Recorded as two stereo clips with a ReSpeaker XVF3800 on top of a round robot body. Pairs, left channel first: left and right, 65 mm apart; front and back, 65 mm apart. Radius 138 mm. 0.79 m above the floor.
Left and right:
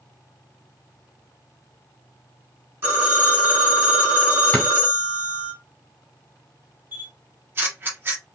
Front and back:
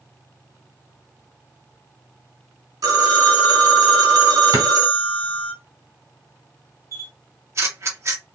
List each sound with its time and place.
2.8 s a phone ringing: 150° right, 1.7 m
4.5 s a drawer: 160° left, 2.5 m
6.9 s a camera shutter: 145° right, 1.6 m